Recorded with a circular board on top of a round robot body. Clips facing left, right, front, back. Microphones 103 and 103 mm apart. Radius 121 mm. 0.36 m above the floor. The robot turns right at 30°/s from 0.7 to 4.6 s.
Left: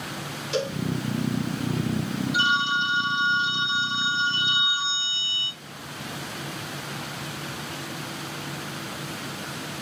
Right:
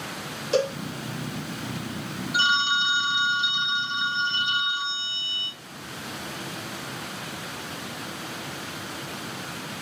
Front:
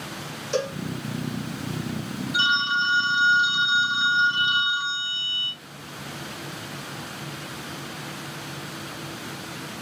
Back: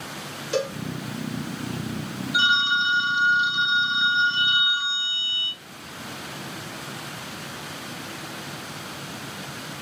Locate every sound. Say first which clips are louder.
0.5 s a cowbell: right 4 dB, even; 105° right, 1.1 m; by 0.8 s 100° right, 1.1 m
2.3 s a phone ringing: right 1 dB, back 2 dB; 125° right, 1.3 m; by 5.6 s 60° right, 1.3 m